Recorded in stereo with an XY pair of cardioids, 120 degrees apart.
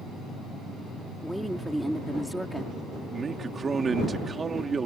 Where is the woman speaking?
Straight ahead.